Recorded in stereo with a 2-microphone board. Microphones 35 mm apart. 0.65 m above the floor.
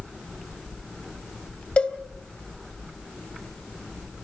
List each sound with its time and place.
1.8 s a cowbell: 40° left (ahead or behind), 1.9 m